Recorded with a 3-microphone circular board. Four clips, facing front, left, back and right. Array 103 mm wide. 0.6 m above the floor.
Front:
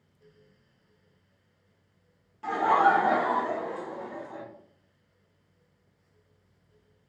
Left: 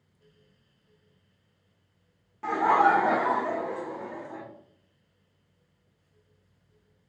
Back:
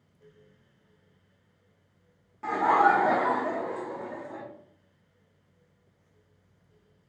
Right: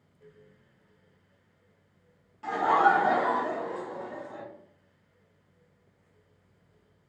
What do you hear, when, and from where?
2.4 s laughter: 135° left, 0.6 m